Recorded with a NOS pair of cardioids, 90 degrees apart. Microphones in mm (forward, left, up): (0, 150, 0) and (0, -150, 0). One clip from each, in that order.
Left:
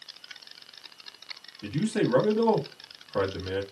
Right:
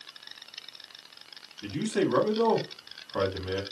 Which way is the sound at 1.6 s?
5° left.